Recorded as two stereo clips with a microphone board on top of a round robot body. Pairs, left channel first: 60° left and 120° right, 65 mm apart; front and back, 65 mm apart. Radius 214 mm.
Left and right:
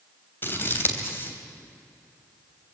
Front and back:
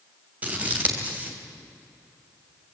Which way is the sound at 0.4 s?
115° left.